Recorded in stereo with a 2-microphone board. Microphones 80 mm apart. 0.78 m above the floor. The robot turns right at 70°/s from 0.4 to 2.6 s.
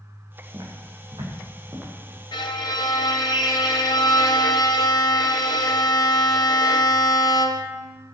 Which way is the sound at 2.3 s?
80° left.